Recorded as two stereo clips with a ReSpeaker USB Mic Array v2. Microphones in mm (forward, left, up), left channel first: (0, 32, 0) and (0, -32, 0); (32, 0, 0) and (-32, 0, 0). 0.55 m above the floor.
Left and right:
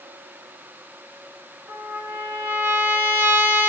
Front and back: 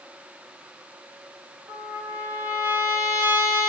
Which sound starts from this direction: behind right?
A trumpet, at 1.7 s.